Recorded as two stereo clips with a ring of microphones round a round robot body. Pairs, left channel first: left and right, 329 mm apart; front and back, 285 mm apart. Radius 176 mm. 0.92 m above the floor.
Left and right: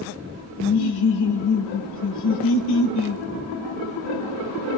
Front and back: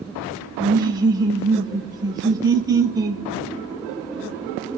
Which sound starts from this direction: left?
Laughter, at 0.6 s.